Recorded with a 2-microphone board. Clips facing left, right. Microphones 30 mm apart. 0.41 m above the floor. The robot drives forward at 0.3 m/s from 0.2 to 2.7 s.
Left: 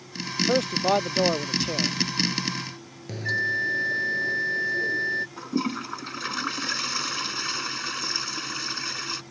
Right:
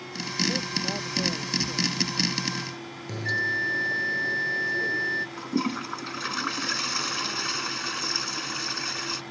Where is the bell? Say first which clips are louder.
Left 1 dB; 5° left (ahead or behind).